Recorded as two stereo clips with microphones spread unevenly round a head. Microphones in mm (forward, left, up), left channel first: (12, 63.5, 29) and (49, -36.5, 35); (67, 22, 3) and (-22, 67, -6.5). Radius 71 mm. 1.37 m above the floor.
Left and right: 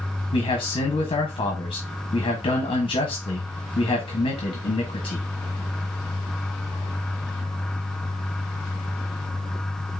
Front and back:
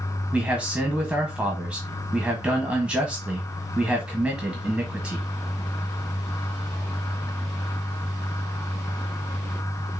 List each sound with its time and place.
0.3 s a man speaking: 75° left, 1.4 m